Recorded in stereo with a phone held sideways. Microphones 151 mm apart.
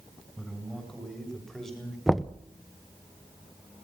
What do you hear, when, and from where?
0.4 s a man speaking: 5° left (ahead or behind), 8 m
2.1 s knocking: centre (ahead or behind), 0.6 m